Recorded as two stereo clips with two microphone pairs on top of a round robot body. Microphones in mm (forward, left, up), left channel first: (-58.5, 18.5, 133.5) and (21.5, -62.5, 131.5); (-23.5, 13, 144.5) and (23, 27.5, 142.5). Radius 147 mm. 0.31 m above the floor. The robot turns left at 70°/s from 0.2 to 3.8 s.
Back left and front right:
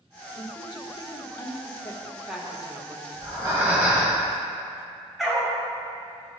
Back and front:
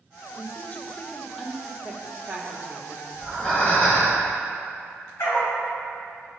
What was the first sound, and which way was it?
A woman speaking, 175° left.